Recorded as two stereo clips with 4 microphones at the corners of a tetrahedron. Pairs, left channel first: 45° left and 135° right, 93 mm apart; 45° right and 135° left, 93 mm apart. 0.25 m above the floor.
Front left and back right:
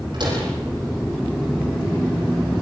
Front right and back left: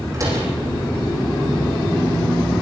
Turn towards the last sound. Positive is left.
turn(degrees=-170)